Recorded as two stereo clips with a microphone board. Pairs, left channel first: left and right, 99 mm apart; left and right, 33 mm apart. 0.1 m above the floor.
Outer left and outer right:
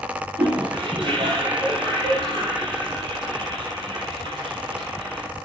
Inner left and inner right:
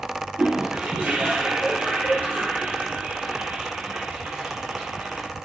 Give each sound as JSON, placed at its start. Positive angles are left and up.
{"t": 0.4, "sound": "a toilet flushing", "side_deg": -55, "distance_m": 3.0}